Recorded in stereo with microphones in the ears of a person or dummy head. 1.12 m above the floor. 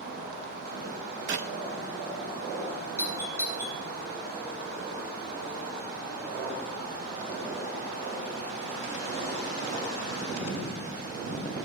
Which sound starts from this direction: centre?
A doorbell, at 3.0 s.